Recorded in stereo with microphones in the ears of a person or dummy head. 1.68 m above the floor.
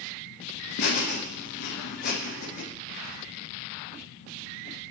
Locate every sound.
0.8 s laughter: 55° left (ahead or behind), 0.9 m